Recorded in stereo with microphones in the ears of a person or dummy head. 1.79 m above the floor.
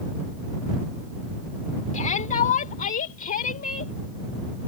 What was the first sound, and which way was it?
A shout, 45° left (ahead or behind).